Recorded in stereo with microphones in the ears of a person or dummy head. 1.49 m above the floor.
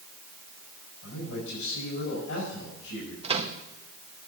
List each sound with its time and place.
1.0 s a man speaking: 80° left, 6 m
3.2 s a microwave: 30° right (ahead or behind), 1.0 m